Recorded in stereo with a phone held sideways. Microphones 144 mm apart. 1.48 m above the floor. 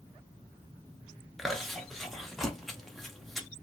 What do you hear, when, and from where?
1.4 s chewing: centre (ahead or behind), 0.8 m